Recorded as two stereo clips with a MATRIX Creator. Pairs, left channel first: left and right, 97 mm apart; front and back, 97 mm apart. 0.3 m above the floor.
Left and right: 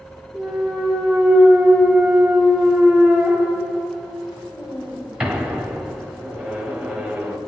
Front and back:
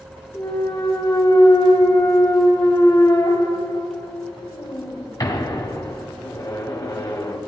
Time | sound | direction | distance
0.3 | a clunk | 10° right | 1.2 m